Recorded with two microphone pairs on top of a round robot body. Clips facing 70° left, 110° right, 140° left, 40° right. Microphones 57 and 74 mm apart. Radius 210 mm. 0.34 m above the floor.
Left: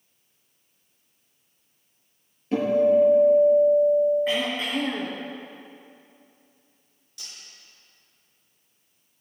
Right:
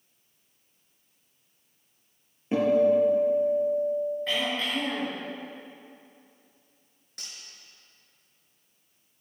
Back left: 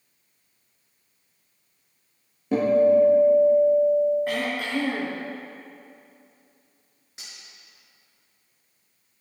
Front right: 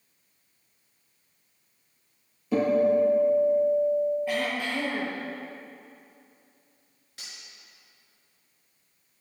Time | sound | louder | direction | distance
2.5 | a guitar | left 2 dB, back left 4 dB | straight behind | 6.5 m
4.3 | throat clearing | left 3 dB, back left 1 dB | 145° left | 4 m
7.2 | cutlery clinking | even, even | 150° right | 6 m